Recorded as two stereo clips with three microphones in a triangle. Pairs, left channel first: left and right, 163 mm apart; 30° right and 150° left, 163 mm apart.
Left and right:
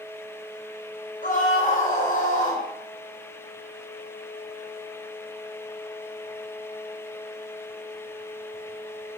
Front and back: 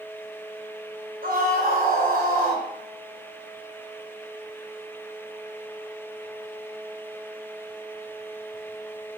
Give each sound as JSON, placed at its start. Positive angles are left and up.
{"t": 1.2, "sound": "a scream", "azimuth_deg": 125, "distance_m": 3.5}